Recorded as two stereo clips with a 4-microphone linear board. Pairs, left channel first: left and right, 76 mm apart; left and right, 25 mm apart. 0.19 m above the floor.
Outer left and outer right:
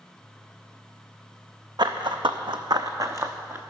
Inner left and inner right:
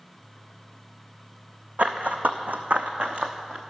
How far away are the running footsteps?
About 0.7 m.